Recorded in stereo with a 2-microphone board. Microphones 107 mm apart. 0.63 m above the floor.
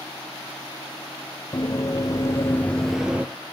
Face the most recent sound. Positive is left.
turn(degrees=-15)  # may be behind; listen again after turning